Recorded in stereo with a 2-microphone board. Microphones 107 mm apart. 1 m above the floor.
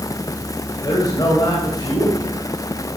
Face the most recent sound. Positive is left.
turn(degrees=40)  # may be behind; listen again after turning